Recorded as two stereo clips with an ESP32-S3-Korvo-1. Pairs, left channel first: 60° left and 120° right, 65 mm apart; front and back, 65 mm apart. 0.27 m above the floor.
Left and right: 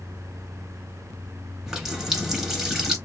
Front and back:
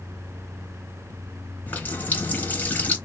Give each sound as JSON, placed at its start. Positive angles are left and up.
{"t": 1.7, "sound": "a running tap", "azimuth_deg": -40, "distance_m": 1.0}